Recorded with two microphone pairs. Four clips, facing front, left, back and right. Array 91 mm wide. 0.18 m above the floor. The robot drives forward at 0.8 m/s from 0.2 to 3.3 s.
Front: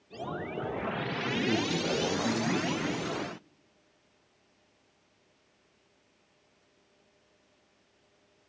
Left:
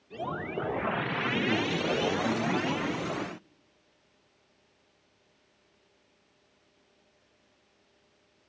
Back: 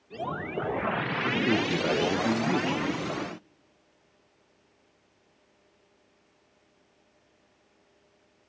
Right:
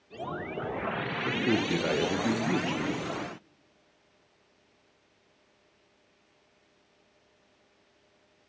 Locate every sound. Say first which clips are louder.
1.2 s a man speaking: right 3 dB, back 3 dB; 130° right, 3.5 m; by 3.0 s 145° right, 4.5 m